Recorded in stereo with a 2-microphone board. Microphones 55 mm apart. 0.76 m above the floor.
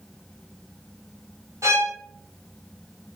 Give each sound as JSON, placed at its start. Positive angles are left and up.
{"t": 1.6, "sound": "a violin", "side_deg": -70, "distance_m": 1.3}